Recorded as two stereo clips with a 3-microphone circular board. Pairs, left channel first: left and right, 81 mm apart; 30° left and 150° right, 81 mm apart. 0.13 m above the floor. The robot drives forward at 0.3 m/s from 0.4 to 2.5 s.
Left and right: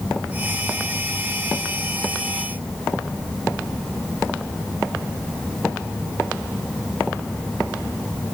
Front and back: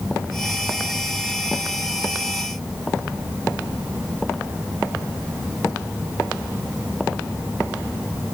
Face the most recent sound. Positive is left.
No sound to turn to.